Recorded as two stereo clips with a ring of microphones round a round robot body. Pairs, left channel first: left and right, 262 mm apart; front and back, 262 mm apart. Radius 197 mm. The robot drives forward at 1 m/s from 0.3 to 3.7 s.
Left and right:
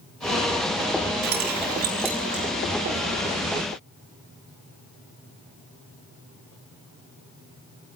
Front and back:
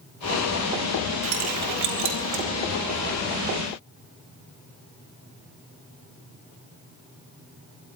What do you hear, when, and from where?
1.2 s keys jangling: 125° right, 1.3 m; by 2.4 s 150° right, 2 m